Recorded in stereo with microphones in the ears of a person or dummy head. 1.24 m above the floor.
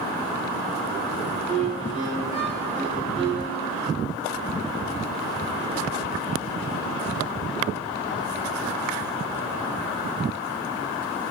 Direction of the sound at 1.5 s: 20° left (ahead or behind).